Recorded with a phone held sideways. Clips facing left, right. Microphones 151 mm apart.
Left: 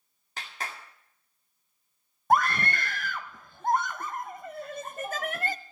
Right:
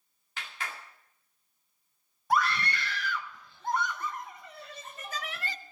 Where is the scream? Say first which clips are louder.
Left 4 dB; 50° left (ahead or behind), 0.6 m.